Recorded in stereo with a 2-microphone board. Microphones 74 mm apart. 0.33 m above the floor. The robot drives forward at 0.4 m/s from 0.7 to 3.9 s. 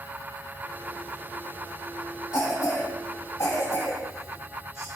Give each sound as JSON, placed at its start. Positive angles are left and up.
{"t": 2.3, "sound": "a cough", "side_deg": 50, "distance_m": 1.6}